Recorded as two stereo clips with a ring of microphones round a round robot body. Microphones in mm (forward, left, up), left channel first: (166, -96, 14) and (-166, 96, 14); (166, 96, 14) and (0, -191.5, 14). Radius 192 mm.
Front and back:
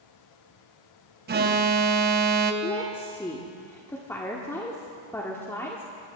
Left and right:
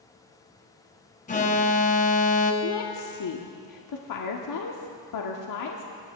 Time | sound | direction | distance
1.3 | an alarm | 110° left | 0.8 m
2.6 | a woman speaking | 55° left | 1.2 m